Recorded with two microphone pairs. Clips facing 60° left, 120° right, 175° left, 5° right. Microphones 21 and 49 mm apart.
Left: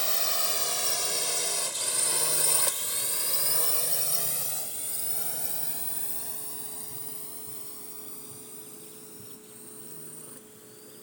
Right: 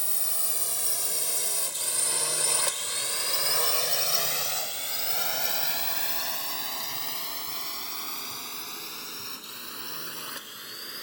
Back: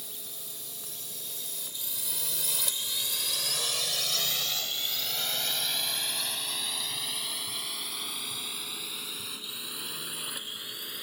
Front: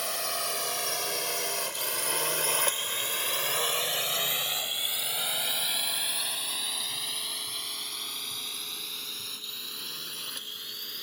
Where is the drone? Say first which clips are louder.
Left 5 dB, front 15 dB; 10° left; by 11.0 s 105° right.